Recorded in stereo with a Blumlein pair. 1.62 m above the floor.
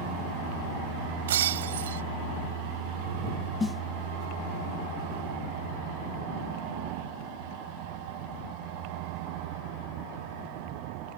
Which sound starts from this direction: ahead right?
Breaking glass, at 1.3 s.